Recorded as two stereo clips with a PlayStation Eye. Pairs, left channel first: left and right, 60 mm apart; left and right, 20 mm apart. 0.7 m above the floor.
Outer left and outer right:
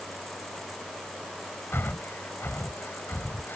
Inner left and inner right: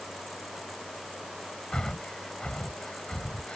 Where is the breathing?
40° left (ahead or behind).